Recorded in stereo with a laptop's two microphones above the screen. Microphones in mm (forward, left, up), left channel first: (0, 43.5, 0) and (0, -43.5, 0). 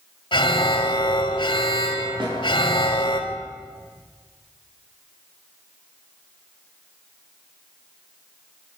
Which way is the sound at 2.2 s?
80° right.